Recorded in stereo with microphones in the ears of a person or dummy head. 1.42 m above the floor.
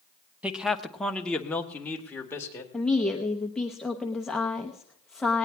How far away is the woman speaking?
About 0.8 m.